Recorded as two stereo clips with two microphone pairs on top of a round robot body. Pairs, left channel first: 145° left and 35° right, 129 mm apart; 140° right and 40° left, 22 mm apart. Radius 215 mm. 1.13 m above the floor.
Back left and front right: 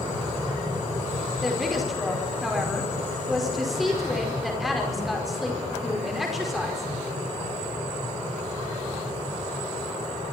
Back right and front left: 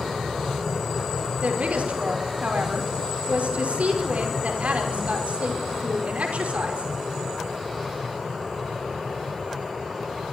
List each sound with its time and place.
1.4 s a woman speaking: 50° left, 5 m